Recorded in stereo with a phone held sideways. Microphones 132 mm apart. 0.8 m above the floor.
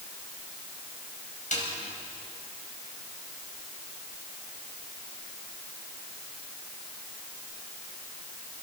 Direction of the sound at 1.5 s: 80° left.